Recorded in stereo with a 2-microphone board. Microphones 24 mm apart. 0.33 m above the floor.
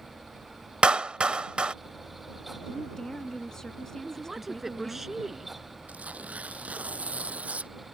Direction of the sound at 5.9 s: 80° right.